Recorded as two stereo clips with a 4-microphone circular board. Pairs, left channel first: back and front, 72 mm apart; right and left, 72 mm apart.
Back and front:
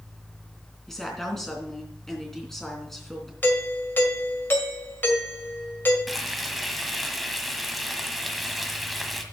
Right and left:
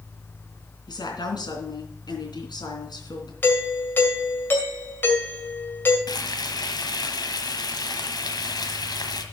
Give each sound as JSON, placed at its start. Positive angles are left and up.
{"t": 0.9, "sound": "a woman speaking", "azimuth_deg": -95, "distance_m": 3.0}
{"t": 3.4, "sound": "a doorbell", "azimuth_deg": -135, "distance_m": 1.9}
{"t": 6.1, "sound": "frying", "azimuth_deg": -90, "distance_m": 1.4}